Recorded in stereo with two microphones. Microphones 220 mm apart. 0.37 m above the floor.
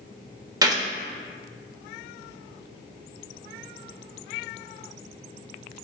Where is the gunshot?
15° right (ahead or behind), 0.7 m.